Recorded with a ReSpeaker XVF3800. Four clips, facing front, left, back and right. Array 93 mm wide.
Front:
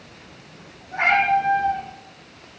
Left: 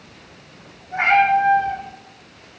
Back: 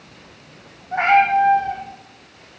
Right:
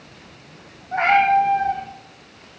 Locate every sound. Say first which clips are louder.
0.9 s a cat meowing: even, back 4 dB; 135° right, 5 m